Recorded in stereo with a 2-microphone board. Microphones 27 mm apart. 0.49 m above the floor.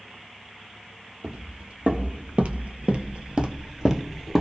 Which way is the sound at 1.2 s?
50° right (ahead or behind).